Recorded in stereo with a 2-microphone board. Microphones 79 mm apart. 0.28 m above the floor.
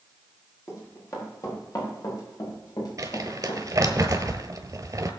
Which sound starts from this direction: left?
Running footsteps, at 0.7 s.